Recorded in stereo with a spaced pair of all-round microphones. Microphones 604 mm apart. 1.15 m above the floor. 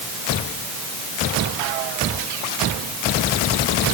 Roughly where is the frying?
I don't hear frying.